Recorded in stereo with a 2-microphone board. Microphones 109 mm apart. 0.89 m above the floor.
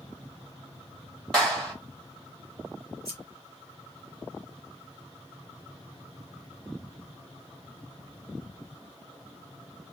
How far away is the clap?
About 3 m.